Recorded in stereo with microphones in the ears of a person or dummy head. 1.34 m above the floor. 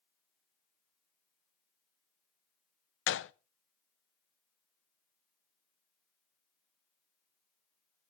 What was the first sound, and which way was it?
A gunshot, 60° left (ahead or behind).